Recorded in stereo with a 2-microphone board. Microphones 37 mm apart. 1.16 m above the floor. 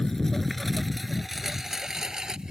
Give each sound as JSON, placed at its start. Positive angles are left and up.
{"t": 0.0, "sound": "a lawn mower", "side_deg": 15}